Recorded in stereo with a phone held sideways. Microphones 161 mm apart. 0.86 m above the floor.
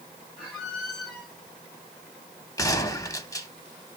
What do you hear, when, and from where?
0.4 s a squeak: centre (ahead or behind), 1.6 m
2.6 s a gunshot: 20° left (ahead or behind), 0.6 m